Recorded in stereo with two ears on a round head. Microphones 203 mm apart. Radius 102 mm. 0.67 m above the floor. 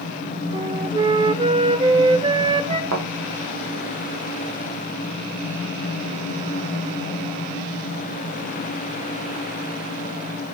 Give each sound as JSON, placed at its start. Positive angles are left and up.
{"t": 0.5, "sound": "a flute", "side_deg": -25, "distance_m": 0.9}
{"t": 2.9, "sound": "a thud", "side_deg": -60, "distance_m": 7.5}